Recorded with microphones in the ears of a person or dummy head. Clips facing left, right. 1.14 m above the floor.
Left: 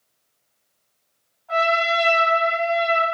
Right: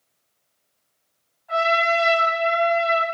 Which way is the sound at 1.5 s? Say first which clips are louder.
Even; 15° right (ahead or behind).